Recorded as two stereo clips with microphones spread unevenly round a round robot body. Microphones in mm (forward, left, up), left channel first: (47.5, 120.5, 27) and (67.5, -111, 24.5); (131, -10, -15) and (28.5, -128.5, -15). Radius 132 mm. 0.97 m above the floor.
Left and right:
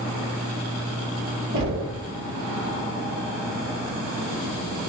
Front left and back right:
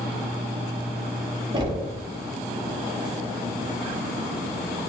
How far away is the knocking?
About 1.4 m.